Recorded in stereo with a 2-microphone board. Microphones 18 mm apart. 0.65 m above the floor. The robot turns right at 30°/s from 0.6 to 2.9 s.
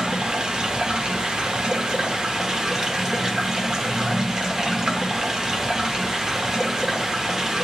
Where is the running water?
115° right, 1.0 m; by 7.7 s 45° right, 1.0 m.